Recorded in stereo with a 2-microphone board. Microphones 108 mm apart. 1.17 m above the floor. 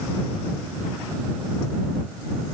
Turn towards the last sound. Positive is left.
No sound to turn to.